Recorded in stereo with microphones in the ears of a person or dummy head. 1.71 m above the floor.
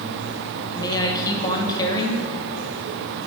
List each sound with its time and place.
0.7 s a woman speaking: 20° left (ahead or behind), 1.3 m